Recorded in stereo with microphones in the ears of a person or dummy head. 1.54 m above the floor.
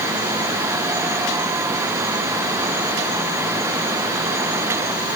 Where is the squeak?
No squeak in this recording.